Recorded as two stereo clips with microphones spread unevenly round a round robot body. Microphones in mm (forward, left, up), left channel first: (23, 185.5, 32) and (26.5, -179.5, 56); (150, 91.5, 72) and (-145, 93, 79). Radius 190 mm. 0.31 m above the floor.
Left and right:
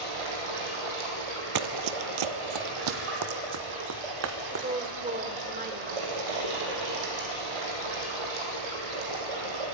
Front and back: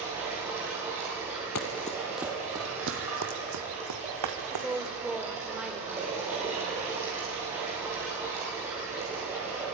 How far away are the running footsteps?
About 0.7 m.